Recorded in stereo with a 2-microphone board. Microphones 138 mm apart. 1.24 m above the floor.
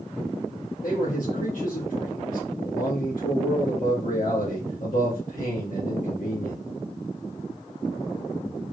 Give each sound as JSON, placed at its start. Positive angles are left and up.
{"t": 0.8, "sound": "a man speaking", "side_deg": 85, "distance_m": 1.9}